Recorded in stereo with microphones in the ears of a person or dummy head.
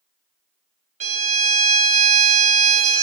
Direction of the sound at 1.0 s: 40° right (ahead or behind).